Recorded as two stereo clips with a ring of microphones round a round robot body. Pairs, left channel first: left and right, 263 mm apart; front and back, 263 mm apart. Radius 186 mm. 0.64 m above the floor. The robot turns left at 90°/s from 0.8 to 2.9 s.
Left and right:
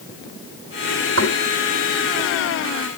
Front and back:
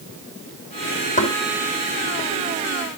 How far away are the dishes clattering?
No dishes clattering in this recording.